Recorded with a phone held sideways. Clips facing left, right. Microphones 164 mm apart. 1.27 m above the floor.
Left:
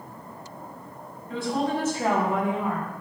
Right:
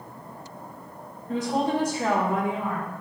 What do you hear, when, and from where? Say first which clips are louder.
1.3 s a woman speaking: right 2 dB; 45° right (ahead or behind), 1.0 m; by 2.9 s 55° left (ahead or behind), 1.2 m